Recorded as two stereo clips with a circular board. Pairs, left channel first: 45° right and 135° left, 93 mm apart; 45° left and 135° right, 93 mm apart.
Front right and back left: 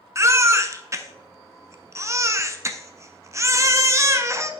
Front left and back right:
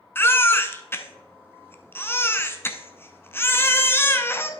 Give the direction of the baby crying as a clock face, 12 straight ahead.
9 o'clock.